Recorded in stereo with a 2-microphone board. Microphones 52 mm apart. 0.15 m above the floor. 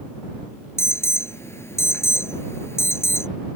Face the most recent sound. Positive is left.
turn(degrees=60)  # may be behind; listen again after turning